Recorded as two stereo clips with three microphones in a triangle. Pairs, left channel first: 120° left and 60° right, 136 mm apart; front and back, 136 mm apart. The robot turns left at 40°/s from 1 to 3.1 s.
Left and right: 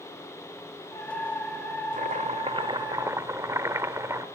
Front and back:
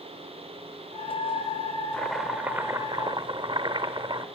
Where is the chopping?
80° right, 1.2 m; by 4.2 s 130° right, 1.2 m.